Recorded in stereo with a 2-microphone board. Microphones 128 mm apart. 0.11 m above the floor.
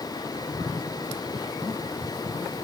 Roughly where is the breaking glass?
No breaking glass in this recording.